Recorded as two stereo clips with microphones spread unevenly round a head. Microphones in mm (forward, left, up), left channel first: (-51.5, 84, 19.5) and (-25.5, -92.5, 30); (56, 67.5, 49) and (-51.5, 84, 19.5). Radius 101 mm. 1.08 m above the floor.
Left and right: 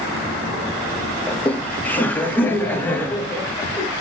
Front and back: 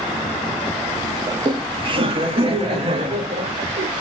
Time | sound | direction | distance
1.3 | laughter | 175° left | 0.9 m